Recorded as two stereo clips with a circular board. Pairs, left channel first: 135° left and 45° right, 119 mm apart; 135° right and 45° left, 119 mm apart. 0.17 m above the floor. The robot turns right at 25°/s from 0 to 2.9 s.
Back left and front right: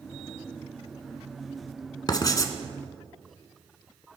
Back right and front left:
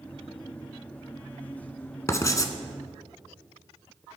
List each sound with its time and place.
2.1 s writing: 170° left, 1.1 m; by 2.5 s straight behind, 1.1 m